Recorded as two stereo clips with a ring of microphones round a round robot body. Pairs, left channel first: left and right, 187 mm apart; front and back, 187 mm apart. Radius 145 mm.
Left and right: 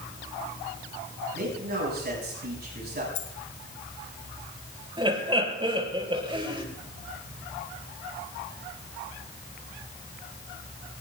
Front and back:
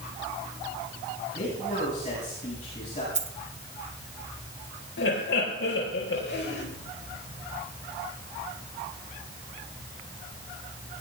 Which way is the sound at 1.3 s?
60° right.